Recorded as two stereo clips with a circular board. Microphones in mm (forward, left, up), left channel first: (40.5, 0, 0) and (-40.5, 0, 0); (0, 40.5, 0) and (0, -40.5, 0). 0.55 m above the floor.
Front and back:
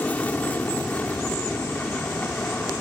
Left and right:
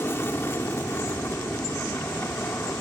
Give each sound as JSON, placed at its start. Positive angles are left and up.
{"t": 0.0, "sound": "an aircraft", "azimuth_deg": 55}